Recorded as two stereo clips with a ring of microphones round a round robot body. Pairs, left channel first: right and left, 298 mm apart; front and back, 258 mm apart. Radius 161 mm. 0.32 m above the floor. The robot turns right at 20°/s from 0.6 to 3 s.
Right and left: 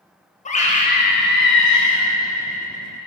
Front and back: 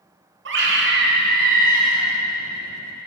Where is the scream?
150° right, 1.6 m; by 2.1 s 120° right, 1.6 m.